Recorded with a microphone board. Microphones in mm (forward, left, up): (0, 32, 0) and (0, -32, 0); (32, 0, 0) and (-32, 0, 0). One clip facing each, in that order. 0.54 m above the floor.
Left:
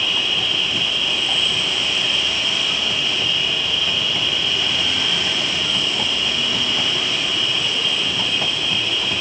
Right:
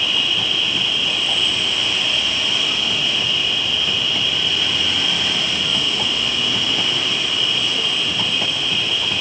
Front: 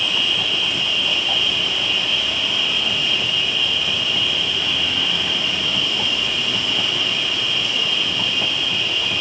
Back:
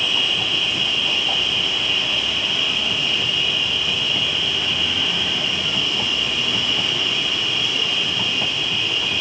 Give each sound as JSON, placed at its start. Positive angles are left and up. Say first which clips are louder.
{"t": 0.0, "sound": "an insect", "louder": "right 1 dB, even", "azimuth_deg": 40, "distance_m": 3.5}